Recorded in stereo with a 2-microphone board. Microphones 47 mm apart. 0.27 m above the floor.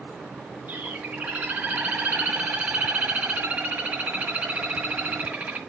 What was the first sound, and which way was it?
A bird, 40° right (ahead or behind).